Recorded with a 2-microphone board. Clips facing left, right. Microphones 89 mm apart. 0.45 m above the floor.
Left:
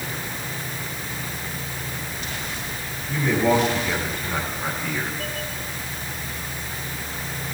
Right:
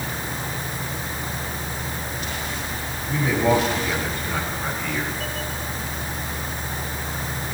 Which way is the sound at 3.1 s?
10° right (ahead or behind).